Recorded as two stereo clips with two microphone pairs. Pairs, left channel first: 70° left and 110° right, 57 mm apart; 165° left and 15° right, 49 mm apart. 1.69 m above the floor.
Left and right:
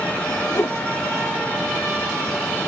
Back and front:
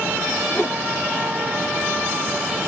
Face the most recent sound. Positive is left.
turn(degrees=95)